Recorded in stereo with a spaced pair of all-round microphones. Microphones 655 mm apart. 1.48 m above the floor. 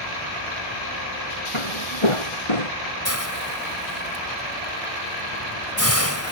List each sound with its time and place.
1.5 s footsteps: 50° left (ahead or behind); by 2.7 s 55° left (ahead or behind)
3.0 s a hiss: 20° left (ahead or behind)